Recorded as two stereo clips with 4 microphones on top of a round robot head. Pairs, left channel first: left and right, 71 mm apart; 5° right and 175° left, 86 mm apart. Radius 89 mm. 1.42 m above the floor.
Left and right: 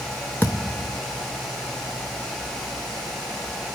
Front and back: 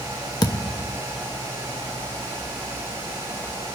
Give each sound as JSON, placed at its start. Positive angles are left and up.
{"t": 0.4, "sound": "a thud", "azimuth_deg": 15, "distance_m": 0.8}